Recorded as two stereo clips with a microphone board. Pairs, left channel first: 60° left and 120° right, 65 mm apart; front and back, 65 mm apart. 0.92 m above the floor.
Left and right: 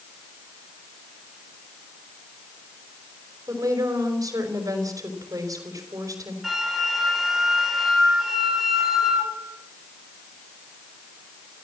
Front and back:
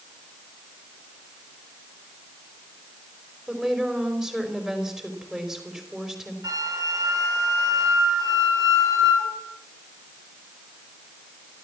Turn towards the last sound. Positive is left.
turn(degrees=155)